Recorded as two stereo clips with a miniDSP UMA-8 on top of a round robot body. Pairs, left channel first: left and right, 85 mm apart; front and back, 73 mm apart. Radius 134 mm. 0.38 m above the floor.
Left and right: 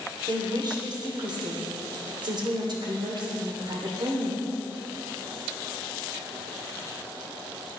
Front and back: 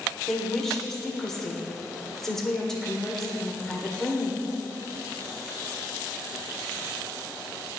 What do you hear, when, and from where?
0.3 s a woman speaking: 80° right, 2 m